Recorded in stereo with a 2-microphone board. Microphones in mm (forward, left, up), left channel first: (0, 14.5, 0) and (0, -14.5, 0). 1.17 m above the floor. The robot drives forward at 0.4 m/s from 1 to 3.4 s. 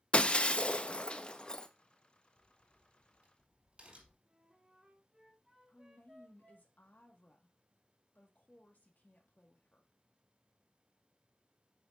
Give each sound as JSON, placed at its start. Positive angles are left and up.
{"t": 0.1, "sound": "breaking glass", "side_deg": 35, "distance_m": 0.5}
{"t": 2.4, "sound": "a crack", "side_deg": -40, "distance_m": 5.0}
{"t": 4.2, "sound": "a flute", "side_deg": -10, "distance_m": 3.5}
{"t": 5.7, "sound": "a woman speaking", "side_deg": 70, "distance_m": 1.6}